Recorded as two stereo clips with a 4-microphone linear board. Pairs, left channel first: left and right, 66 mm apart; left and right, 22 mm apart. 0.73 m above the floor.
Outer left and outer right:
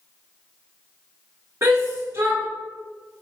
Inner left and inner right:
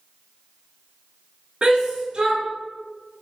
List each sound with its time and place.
1.6 s a shout: 35° right (ahead or behind), 1.7 m